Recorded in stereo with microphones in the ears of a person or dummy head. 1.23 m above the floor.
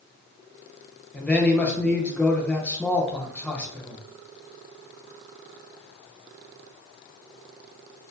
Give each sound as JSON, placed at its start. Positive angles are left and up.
{"t": 1.1, "sound": "a man speaking", "side_deg": 5, "distance_m": 0.5}